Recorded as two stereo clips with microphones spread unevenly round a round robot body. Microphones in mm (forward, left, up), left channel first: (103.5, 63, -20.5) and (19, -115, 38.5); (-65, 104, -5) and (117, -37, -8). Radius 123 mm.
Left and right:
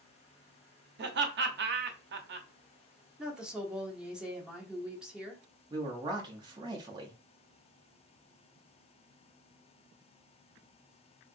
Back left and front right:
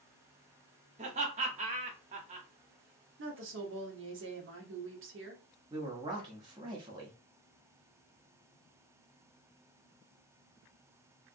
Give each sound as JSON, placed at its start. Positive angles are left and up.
{"t": 1.0, "sound": "laughter", "azimuth_deg": -85, "distance_m": 0.7}
{"t": 3.2, "sound": "a woman speaking", "azimuth_deg": -20, "distance_m": 1.1}
{"t": 5.7, "sound": "a man speaking", "azimuth_deg": -40, "distance_m": 0.6}